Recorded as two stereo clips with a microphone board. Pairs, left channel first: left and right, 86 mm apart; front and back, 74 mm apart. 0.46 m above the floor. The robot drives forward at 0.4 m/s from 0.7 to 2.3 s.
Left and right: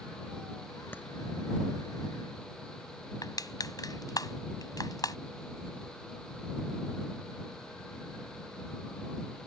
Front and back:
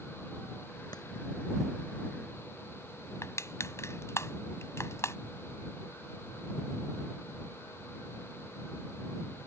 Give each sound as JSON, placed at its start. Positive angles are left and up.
{"t": 0.9, "sound": "a clap", "azimuth_deg": 25}
{"t": 3.2, "sound": "crushing", "azimuth_deg": 50}